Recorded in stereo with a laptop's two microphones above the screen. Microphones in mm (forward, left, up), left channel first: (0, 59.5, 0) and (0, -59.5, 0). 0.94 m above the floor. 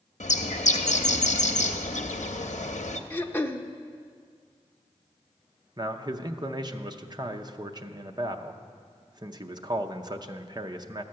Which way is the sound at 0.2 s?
85° left.